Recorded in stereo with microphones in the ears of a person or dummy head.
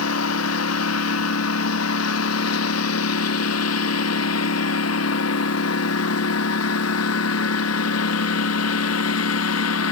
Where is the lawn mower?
85° left; by 9.9 s 80° left.